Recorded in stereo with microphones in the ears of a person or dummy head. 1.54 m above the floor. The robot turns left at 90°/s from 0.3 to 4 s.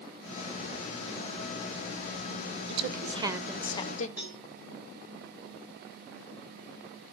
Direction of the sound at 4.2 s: 5° right (ahead or behind).